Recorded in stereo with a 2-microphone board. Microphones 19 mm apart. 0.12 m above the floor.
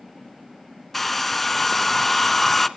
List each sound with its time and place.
0.9 s a hair dryer: 10° left (ahead or behind), 0.7 m